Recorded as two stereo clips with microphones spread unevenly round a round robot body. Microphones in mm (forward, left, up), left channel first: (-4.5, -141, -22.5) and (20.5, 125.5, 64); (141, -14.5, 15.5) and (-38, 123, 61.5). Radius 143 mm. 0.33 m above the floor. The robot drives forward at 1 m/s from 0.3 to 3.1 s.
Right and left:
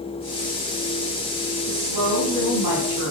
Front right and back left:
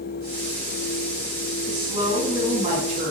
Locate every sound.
1.7 s a woman speaking: 70° left, 4 m; by 3.1 s 90° left, 3.5 m